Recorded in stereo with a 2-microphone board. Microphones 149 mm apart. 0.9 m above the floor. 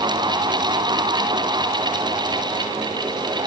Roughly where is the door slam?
No door slam in this recording.